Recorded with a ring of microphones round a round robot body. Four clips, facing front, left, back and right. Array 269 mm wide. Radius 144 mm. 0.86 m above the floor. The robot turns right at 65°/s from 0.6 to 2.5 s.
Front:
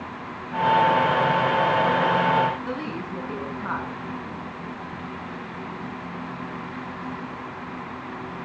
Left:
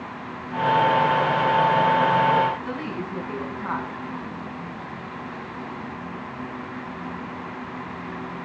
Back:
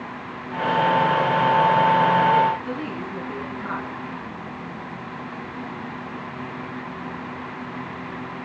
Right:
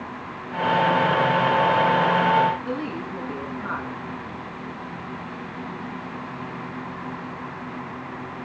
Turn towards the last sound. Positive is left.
turn(degrees=70)